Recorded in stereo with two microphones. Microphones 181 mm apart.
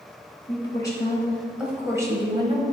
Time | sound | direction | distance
0.5 | a woman speaking | 30° left (ahead or behind) | 1.5 m